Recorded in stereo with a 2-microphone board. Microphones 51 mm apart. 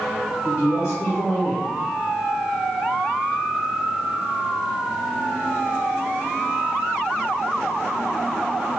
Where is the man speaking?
60° left (ahead or behind), 1.1 m.